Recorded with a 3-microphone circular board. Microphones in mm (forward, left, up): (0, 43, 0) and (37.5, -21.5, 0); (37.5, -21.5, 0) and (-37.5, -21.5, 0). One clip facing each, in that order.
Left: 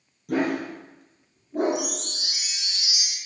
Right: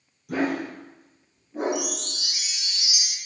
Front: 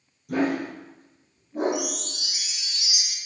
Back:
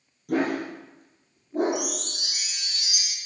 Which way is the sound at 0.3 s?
155° left.